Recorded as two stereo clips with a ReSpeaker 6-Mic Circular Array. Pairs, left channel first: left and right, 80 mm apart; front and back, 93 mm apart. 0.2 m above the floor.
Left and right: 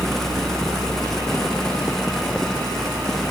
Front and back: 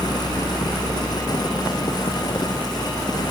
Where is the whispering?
No whispering in this recording.